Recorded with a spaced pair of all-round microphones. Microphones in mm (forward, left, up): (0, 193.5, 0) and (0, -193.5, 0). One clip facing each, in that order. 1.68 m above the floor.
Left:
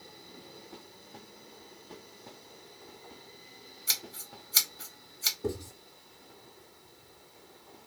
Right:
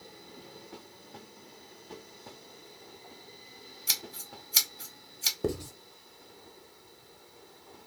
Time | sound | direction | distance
3.9 | scissors | 40° right (ahead or behind) | 0.7 m
5.4 | writing | 75° right (ahead or behind) | 0.6 m